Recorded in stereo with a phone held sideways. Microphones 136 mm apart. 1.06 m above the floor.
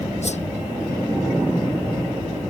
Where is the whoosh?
65° left (ahead or behind).